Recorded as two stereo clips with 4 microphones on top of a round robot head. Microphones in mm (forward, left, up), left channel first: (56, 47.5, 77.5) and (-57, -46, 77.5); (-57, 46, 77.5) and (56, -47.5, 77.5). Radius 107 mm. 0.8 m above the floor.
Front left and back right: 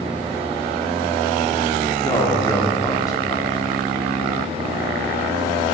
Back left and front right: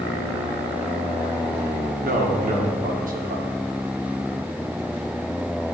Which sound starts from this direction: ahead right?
A man speaking, at 2.0 s.